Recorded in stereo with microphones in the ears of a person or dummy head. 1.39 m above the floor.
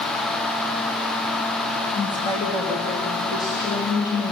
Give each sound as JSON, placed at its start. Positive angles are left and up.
{"t": 1.9, "sound": "a woman speaking", "side_deg": 25, "distance_m": 2.5}